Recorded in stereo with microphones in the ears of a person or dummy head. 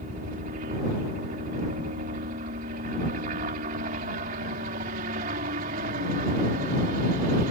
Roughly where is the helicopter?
Right.